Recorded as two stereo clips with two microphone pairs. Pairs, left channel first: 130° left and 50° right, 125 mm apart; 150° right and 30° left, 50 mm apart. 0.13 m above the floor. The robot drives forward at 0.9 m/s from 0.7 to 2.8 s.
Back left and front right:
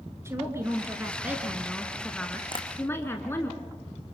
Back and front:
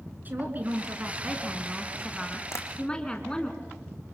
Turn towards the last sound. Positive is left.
turn(degrees=180)